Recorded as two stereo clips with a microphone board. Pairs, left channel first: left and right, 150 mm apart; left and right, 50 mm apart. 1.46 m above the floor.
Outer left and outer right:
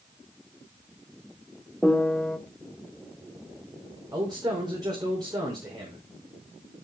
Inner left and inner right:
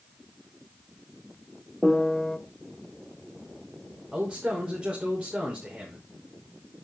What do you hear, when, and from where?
1.8 s a piano: 5° left (ahead or behind), 1.3 m
4.1 s a man speaking: 30° right (ahead or behind), 5.5 m